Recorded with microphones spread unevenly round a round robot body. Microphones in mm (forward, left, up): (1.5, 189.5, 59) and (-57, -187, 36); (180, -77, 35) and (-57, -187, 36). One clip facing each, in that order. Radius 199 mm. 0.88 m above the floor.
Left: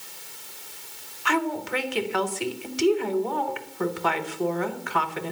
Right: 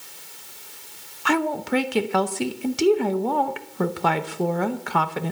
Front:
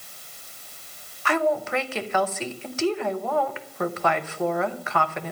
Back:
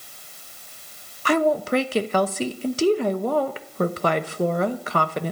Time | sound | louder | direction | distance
1.2 | a woman speaking | right 4 dB, back 4 dB | 110° right | 0.9 m